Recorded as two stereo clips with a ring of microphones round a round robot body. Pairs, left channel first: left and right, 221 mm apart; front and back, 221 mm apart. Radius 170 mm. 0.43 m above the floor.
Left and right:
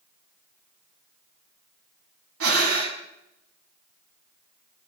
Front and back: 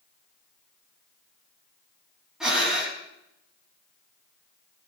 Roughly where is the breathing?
Right.